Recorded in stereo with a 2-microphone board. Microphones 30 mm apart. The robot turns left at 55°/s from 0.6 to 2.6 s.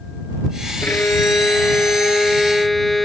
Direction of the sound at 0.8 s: 105° left.